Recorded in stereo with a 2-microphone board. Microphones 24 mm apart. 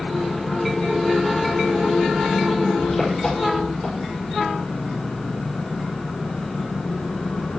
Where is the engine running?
20° left (ahead or behind), 7 m.